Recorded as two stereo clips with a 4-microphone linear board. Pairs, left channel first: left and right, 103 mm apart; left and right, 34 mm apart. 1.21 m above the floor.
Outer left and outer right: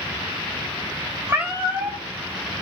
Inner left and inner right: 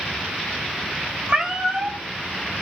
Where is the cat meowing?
20° right (ahead or behind), 0.8 m.